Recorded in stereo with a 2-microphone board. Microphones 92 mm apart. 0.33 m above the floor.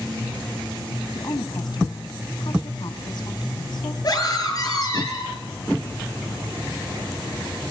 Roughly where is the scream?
Left.